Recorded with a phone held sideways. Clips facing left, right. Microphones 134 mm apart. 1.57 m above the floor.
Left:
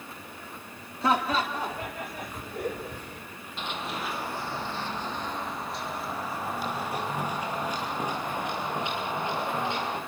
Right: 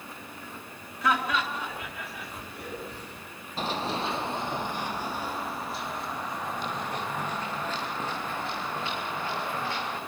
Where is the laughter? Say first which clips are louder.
Left 2 dB; 30° left (ahead or behind), 3.5 m; by 3.2 s 50° left (ahead or behind), 5 m.